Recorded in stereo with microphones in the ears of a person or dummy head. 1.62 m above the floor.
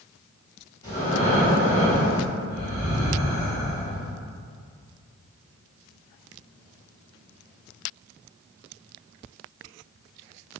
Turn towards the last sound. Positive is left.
turn(degrees=25)  # may be behind; listen again after turning